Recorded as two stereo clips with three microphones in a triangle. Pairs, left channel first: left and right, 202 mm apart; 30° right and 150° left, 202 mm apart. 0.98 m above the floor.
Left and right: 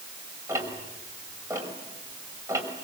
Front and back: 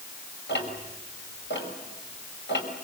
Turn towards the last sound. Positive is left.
turn(degrees=-15)